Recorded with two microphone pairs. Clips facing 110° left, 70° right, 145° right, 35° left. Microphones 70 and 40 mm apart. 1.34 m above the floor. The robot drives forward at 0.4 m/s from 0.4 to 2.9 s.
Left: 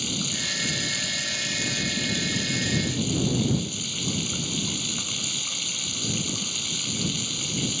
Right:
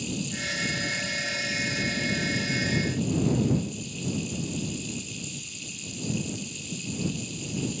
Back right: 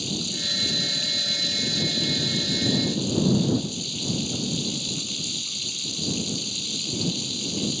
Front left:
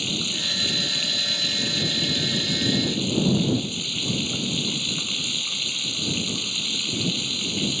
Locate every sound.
0.0 s running water: 85° left; by 7.8 s 90° left